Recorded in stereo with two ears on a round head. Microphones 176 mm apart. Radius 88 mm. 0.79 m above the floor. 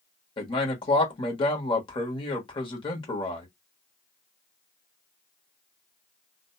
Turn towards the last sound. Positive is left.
turn(degrees=30)  # may be behind; listen again after turning